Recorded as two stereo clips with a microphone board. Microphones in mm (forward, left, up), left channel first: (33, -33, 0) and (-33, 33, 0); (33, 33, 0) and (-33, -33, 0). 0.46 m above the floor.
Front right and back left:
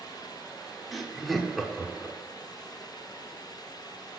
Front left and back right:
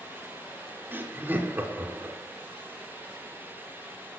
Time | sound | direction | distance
0.9 | laughter | 135° right | 0.7 m